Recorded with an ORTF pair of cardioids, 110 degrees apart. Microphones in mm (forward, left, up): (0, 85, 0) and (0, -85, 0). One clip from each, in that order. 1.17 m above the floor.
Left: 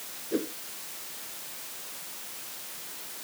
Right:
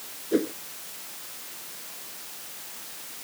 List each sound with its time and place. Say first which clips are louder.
0.3 s a whoosh: right 6 dB; 35° right